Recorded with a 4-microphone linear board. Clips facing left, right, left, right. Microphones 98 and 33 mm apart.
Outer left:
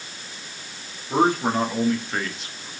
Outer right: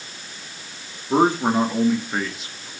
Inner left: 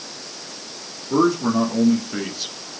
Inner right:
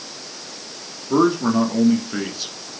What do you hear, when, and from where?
1.1 s a man speaking: 25° right (ahead or behind), 2.5 m; by 2.7 s 5° left (ahead or behind), 1.8 m